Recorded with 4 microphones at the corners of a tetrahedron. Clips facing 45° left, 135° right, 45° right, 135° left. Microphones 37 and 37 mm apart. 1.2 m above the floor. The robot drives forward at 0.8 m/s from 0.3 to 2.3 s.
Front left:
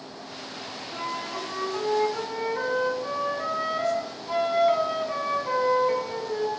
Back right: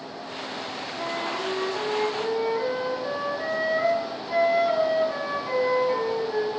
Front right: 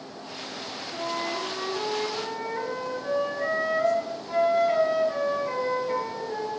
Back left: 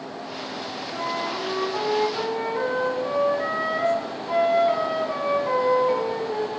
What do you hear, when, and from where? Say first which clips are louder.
0.9 s a flute: back right 2 dB, back left 2 dB; 115° left, 4 m; by 6.5 s 130° left, 4.5 m